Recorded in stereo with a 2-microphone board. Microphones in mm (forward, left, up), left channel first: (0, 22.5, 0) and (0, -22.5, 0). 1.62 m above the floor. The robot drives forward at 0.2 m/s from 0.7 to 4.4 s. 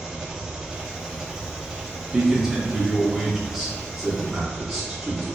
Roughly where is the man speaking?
Centre.